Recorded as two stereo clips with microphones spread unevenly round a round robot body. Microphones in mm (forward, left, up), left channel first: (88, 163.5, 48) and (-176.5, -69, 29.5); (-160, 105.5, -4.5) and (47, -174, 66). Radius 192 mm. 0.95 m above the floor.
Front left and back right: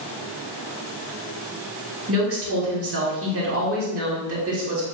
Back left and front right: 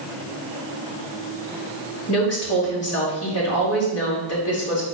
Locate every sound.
2.1 s a woman speaking: 170° left, 3 m